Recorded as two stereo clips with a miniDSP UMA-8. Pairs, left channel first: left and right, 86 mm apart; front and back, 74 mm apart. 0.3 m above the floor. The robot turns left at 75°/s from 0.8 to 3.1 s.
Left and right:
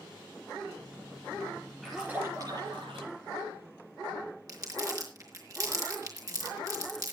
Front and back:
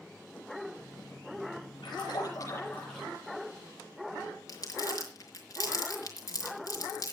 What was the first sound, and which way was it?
A splash, 5° left.